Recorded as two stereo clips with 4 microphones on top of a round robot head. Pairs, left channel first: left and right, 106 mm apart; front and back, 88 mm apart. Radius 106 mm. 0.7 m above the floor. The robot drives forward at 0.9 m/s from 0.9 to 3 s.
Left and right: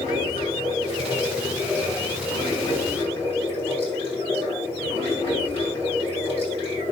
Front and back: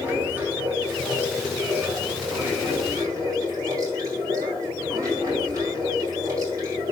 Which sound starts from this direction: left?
Running water, at 0.0 s.